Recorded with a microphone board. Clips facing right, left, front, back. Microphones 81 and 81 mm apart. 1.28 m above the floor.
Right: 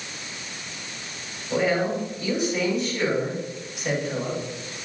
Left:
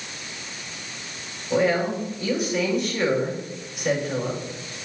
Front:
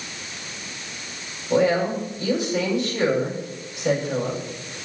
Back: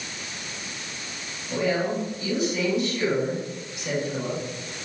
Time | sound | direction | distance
1.5 | a woman speaking | straight ahead | 8 m